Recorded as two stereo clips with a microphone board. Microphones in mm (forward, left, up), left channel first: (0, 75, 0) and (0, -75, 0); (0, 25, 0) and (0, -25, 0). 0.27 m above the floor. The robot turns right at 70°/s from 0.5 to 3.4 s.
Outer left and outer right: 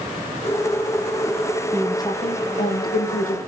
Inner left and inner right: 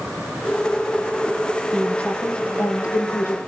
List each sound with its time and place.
1.7 s a woman speaking: 5° left, 8.5 m; by 3.4 s 125° left, 8.5 m